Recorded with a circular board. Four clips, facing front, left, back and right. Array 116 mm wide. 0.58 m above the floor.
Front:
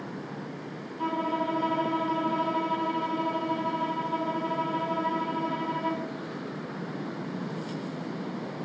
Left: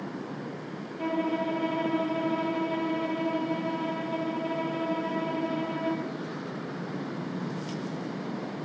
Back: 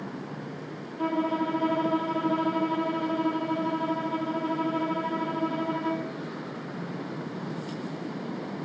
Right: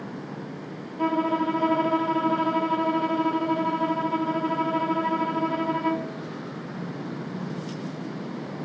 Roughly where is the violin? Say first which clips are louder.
Right 5 dB, back 2 dB; right.